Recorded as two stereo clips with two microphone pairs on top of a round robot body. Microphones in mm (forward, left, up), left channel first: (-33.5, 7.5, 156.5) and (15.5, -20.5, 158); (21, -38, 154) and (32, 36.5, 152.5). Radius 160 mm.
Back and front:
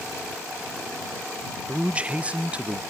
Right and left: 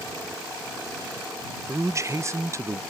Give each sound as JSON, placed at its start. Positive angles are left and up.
{"t": 1.7, "sound": "a man speaking", "azimuth_deg": 35}